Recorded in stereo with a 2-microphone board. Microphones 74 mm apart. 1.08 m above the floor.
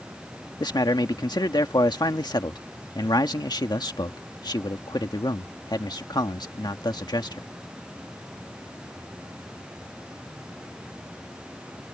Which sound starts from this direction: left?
A man speaking, at 0.6 s.